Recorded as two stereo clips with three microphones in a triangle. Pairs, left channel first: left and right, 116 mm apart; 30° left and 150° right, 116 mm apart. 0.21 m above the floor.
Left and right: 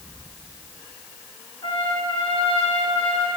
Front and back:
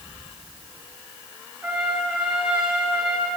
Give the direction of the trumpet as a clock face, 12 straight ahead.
8 o'clock.